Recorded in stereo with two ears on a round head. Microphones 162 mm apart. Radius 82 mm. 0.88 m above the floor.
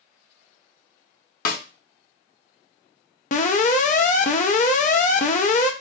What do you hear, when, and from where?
1.4 s a snare drum: 50° left (ahead or behind), 0.6 m
3.3 s an alarm: 45° left (ahead or behind), 0.6 m